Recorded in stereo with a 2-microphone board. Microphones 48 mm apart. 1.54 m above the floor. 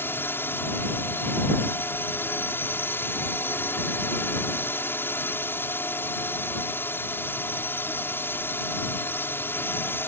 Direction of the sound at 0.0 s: 50° left (ahead or behind).